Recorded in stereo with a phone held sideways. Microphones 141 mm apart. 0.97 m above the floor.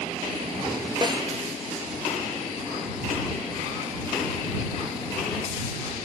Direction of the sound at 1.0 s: 30° right (ahead or behind).